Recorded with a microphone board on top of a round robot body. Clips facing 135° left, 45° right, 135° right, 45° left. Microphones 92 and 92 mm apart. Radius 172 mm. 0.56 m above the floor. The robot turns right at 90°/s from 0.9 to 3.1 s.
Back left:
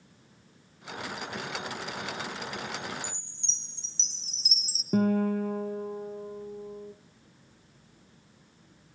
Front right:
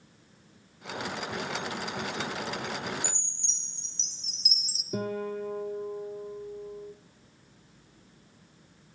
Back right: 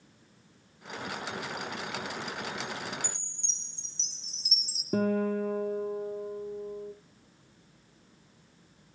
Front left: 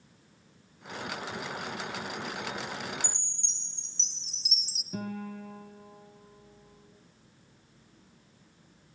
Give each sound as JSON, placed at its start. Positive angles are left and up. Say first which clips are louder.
{"t": 3.0, "sound": "a chime", "louder": "front right 3 dB, even", "azimuth_deg": 75, "distance_m": 2.0}
{"t": 4.9, "sound": "a guitar", "louder": "back left 7 dB, back right 10 dB", "azimuth_deg": 180, "distance_m": 1.0}